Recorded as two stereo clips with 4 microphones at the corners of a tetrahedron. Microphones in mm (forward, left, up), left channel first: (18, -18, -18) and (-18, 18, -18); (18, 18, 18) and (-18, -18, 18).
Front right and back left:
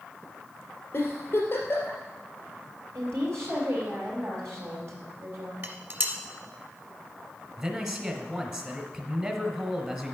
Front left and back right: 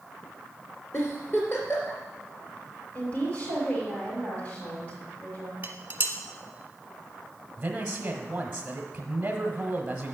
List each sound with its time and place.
0.9 s a giggle: straight ahead, 2.5 m
3.0 s a woman speaking: 110° left, 5 m
5.6 s dishes clattering: straight behind, 1.3 m
7.6 s a man speaking: 175° left, 1.4 m